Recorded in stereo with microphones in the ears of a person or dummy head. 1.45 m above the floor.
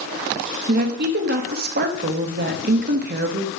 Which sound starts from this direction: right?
A woman speaking, at 0.7 s.